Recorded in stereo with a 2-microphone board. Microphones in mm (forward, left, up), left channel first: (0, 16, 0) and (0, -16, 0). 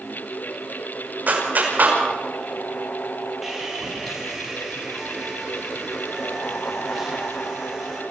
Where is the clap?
50° right (ahead or behind), 6 m.